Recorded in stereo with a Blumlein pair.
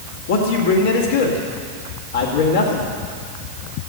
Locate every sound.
0.3 s a man speaking: 60° left, 2 m